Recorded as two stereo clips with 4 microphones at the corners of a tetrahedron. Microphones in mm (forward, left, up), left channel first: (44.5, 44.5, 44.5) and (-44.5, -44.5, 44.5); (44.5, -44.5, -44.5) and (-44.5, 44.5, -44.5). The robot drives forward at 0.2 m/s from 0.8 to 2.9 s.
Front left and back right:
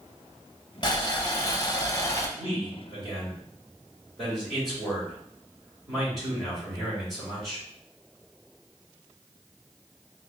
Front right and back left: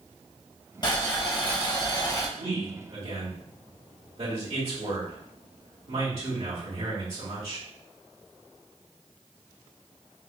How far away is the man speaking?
About 2 m.